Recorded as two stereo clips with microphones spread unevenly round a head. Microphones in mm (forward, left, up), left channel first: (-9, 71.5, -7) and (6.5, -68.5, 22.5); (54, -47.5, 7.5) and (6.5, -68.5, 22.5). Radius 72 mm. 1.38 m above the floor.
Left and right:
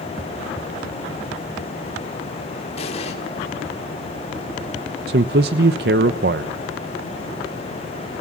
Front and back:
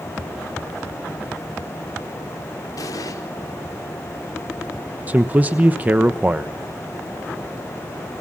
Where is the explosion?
45° left, 4.5 m.